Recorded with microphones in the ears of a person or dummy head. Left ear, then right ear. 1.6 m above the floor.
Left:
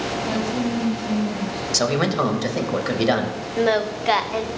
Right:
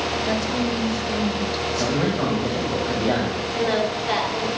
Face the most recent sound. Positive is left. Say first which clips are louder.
# left 3 dB
turn(degrees=35)  # may be behind; listen again after turning